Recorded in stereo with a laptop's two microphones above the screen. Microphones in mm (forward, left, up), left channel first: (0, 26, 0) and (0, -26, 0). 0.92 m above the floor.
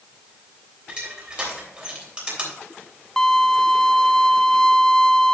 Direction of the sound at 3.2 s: 10° left (ahead or behind).